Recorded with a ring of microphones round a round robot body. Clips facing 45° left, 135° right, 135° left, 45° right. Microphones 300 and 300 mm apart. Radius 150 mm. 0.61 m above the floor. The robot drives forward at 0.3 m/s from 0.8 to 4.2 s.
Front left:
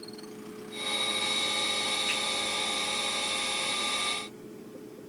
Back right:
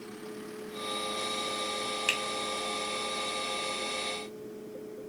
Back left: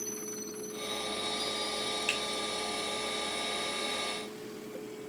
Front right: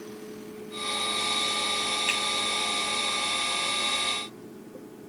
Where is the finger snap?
120° right, 1.9 m.